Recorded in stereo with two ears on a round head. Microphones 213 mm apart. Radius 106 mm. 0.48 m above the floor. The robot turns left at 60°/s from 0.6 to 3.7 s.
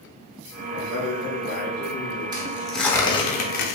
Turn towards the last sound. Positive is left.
turn(degrees=120)